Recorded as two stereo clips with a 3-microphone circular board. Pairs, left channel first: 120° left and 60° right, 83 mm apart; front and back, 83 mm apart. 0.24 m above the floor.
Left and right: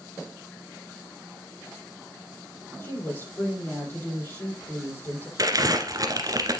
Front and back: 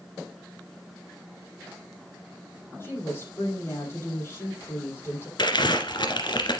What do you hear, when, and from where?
2.8 s a woman speaking: 60° left, 6.5 m
5.4 s crumpling: 20° right, 1.8 m